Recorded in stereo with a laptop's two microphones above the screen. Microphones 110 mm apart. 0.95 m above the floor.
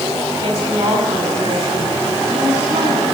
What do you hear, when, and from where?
0.4 s a woman speaking: 35° right (ahead or behind), 7 m